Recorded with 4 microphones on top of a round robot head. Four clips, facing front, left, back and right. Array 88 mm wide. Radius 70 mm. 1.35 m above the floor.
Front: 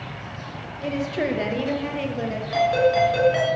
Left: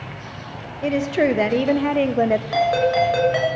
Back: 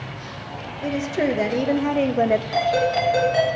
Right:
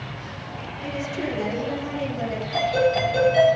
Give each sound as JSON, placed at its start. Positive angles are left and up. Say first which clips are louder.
{"t": 0.8, "sound": "a woman speaking", "louder": "left 10 dB, back 2 dB", "azimuth_deg": 95, "distance_m": 1.5}
{"t": 2.5, "sound": "a ringtone", "louder": "right 1 dB, front 1 dB", "azimuth_deg": 90, "distance_m": 6.5}